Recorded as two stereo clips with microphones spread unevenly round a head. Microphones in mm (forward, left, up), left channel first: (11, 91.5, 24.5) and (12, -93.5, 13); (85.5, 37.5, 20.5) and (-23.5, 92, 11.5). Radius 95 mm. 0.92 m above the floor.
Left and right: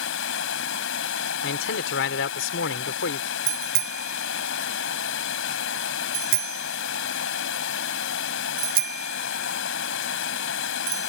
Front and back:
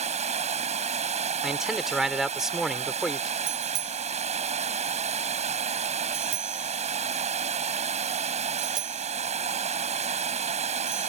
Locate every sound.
0.0 s running water: 120° left
1.4 s a man speaking: 65° left
3.5 s a bicycle bell: 135° right